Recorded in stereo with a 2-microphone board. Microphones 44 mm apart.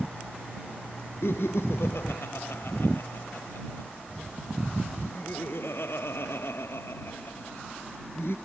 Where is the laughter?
65° left (ahead or behind).